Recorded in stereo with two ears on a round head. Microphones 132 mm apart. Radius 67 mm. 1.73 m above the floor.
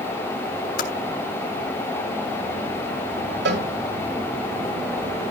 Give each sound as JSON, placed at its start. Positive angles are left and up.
{"t": 0.8, "sound": "typing on a keyboard", "side_deg": 60, "distance_m": 3.0}
{"t": 3.5, "sound": "a cowbell", "side_deg": -80, "distance_m": 9.5}